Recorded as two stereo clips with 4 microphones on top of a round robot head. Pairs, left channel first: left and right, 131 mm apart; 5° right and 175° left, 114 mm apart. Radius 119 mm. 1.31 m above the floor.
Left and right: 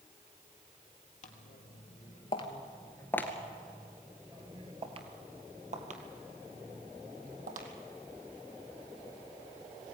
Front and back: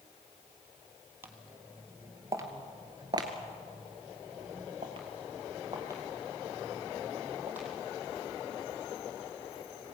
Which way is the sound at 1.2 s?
110° left.